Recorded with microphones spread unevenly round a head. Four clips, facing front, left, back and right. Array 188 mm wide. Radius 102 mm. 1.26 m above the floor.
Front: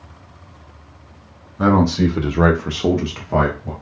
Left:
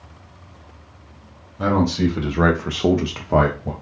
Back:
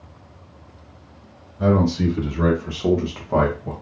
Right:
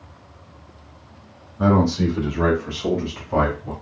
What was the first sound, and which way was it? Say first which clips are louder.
A man speaking: right 1 dB, front 3 dB; 5° right.